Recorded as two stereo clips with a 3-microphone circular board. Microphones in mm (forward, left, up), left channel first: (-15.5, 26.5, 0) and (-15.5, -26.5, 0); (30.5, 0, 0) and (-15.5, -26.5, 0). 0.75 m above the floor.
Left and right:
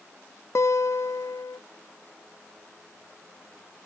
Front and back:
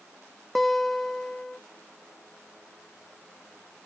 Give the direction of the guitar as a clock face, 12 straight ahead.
8 o'clock.